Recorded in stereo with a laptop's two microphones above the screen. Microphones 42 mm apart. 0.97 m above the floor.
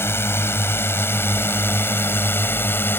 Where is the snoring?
I don't hear snoring.